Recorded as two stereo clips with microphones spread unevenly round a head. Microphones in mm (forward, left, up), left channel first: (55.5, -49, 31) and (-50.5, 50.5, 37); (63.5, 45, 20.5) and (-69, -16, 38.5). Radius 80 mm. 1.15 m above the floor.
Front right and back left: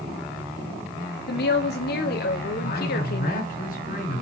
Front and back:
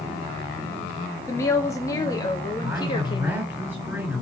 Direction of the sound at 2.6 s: 80° right.